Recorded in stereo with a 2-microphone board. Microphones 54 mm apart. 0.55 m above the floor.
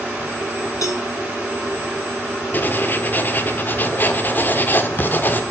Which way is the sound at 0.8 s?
80° left.